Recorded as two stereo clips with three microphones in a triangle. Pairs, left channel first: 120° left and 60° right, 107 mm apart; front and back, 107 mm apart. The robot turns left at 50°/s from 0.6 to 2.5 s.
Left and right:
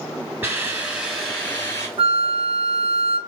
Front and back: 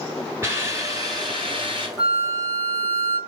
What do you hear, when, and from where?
0.4 s a hiss: 125° right, 2 m; by 1.9 s 175° left, 2 m
2.0 s a flute: 45° right, 0.7 m; by 3.2 s 70° right, 0.7 m